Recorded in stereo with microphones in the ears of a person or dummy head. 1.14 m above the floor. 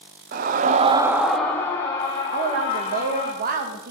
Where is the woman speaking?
50° right (ahead or behind), 1.5 m.